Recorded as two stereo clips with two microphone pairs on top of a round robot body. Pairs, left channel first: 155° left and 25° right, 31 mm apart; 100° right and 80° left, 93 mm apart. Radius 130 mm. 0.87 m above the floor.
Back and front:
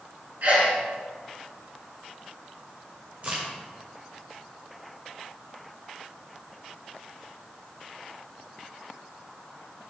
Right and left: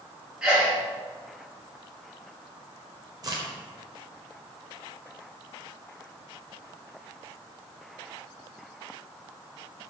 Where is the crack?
30° left, 0.8 m.